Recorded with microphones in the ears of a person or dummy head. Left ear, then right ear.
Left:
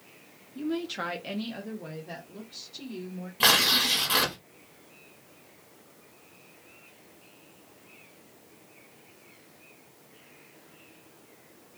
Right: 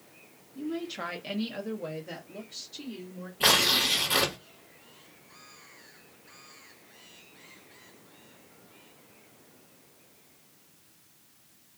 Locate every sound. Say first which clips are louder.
0.6 s a woman speaking: left 3 dB; 30° left (ahead or behind), 0.6 m; by 3.3 s 35° right (ahead or behind), 1.4 m
3.4 s tearing paper: left 1 dB; 30° left (ahead or behind), 1.4 m